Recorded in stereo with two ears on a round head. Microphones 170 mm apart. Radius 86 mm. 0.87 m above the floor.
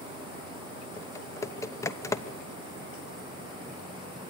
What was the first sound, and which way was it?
Typing on a keyboard, 15° left (ahead or behind).